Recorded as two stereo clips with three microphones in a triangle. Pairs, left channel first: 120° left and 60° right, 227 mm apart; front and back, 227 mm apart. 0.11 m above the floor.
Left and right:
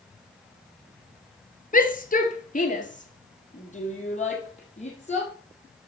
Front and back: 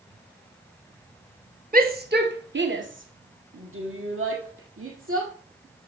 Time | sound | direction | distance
1.7 | a shout | 155° left | 1.5 m